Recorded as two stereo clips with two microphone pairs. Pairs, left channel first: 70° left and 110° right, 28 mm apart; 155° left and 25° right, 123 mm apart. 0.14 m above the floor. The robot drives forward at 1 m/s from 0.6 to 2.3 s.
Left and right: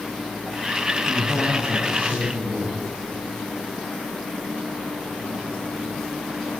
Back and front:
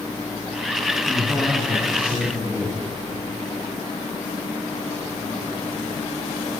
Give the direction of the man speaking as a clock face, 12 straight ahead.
3 o'clock.